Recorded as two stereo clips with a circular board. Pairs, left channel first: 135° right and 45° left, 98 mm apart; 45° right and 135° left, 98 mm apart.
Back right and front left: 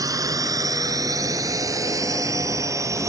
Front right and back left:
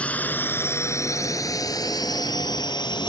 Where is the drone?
25° left; by 3.1 s 10° right.